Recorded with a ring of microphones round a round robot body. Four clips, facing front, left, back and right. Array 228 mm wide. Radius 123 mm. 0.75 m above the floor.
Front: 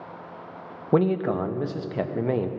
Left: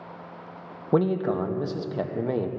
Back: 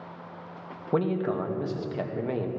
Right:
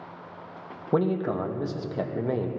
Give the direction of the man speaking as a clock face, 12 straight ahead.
11 o'clock.